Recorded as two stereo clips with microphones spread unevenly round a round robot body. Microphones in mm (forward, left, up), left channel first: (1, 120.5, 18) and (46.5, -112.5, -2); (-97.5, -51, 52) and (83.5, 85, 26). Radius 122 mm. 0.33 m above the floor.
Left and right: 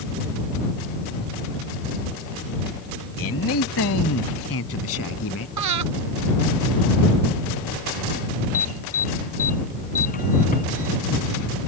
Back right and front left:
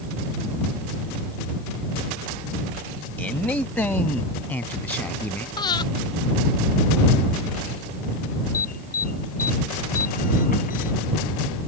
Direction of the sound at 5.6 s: 70° right.